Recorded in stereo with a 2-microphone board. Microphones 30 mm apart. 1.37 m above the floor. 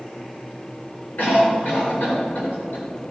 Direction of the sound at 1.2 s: 80° left.